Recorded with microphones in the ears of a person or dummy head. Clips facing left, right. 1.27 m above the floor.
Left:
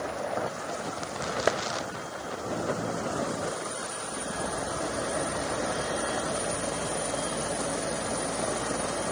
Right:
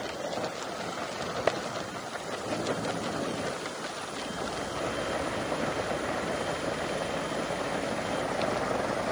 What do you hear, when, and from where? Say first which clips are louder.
1.5 s a clap: left 2 dB; 5° left (ahead or behind), 0.9 m